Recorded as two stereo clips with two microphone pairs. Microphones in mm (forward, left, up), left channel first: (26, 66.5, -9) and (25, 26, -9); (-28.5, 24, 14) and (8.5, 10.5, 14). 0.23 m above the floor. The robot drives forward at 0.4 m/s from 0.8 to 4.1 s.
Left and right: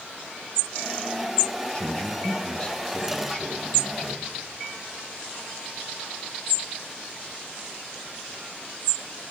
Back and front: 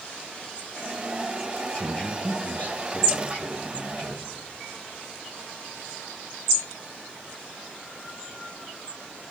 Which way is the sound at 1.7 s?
130° left.